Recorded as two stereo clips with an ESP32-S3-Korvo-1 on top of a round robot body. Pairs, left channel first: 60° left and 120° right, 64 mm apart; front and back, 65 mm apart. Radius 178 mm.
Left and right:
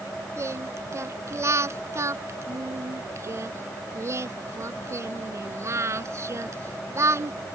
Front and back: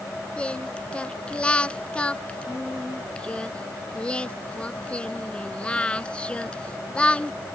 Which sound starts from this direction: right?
Singing, at 0.4 s.